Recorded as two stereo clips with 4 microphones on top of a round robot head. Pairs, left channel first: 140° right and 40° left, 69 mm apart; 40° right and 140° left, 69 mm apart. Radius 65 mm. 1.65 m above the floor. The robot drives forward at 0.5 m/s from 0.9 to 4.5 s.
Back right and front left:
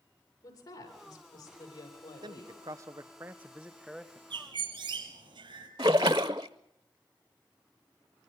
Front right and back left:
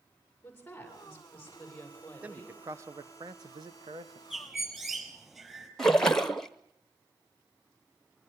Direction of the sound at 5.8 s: 40° left.